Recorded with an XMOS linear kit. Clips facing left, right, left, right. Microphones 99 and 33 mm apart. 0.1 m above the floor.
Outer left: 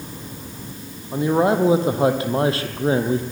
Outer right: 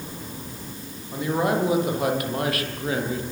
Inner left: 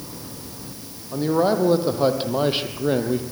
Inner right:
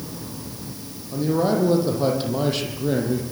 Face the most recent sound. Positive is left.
turn(degrees=30)  # may be behind; listen again after turning